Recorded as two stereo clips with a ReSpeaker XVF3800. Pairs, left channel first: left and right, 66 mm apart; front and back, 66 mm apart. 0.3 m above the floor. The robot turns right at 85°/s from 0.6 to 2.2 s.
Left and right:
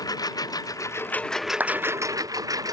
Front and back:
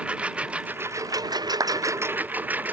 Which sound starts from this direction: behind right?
A clap, at 1.6 s.